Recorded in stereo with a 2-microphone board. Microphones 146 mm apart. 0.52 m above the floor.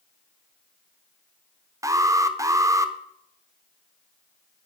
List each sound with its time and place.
1.8 s an alarm: 20° right (ahead or behind), 0.9 m